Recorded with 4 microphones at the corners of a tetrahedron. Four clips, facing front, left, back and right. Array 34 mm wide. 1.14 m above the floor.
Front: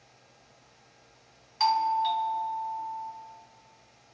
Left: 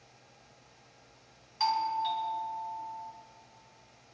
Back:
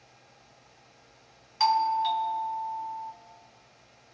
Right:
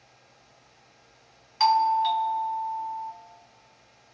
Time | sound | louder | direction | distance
1.6 | a doorbell | right 9 dB, back 1 dB | 100° right | 1.0 m